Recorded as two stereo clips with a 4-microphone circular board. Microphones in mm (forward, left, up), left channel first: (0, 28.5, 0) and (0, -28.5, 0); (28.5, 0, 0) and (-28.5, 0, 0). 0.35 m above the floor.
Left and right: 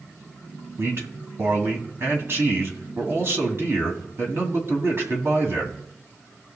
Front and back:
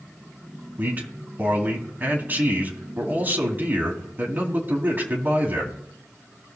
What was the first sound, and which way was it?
A man speaking, 125° right.